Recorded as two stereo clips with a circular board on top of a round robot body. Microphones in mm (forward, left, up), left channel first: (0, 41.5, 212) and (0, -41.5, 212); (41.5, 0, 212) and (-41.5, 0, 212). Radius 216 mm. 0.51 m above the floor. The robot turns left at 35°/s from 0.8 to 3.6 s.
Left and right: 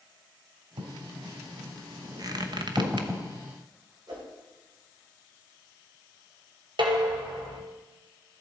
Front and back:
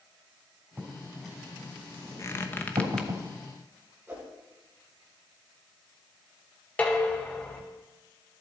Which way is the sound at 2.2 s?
50° right.